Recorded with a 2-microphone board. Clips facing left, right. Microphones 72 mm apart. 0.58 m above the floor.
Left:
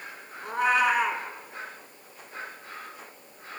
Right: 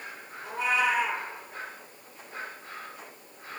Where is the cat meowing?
60° left (ahead or behind), 1.5 m.